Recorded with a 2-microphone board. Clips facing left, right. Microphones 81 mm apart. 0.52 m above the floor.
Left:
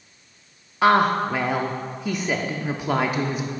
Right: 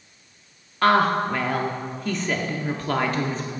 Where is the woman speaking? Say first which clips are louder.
Left 1 dB; 10° left (ahead or behind), 0.7 m.